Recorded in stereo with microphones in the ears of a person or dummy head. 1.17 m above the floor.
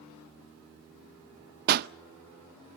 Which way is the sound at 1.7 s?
45° right (ahead or behind).